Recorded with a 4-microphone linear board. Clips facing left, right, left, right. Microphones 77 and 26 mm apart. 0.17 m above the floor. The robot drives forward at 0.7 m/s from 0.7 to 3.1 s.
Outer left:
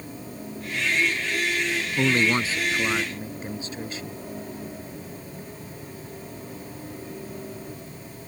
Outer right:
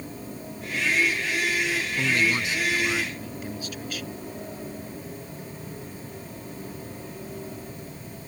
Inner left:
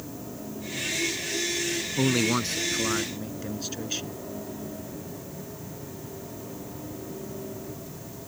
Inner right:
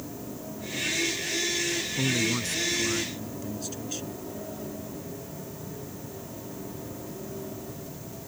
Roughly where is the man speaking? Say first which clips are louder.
Outer left 4 dB, inner left 4 dB; left.